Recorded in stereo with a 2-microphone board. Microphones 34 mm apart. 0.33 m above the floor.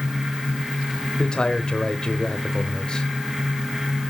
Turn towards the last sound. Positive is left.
turn(degrees=25)  # may be behind; listen again after turning